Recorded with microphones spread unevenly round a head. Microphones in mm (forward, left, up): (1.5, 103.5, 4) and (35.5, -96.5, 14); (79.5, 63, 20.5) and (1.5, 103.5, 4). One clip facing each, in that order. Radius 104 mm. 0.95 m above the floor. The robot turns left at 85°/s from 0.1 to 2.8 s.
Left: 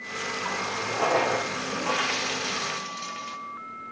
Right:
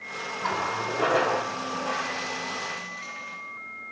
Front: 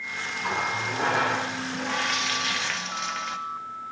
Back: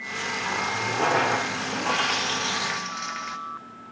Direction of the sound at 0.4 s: 95° right.